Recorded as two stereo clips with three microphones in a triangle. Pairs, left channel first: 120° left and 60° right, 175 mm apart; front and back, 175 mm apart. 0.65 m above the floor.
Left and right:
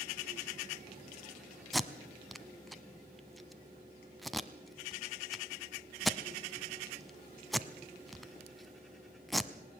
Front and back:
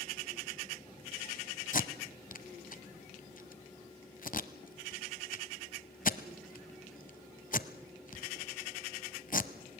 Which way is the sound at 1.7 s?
30° left.